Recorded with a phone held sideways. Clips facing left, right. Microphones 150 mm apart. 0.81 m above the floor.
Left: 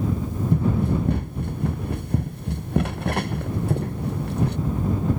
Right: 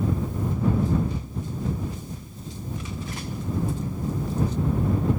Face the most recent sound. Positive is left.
turn(degrees=65)  # may be behind; listen again after turning